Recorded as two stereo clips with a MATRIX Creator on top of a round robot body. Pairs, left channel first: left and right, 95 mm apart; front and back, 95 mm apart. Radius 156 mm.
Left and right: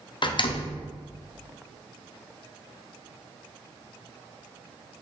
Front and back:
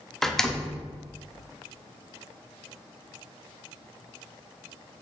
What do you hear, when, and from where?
0.2 s a door slam: 85° left, 1.0 m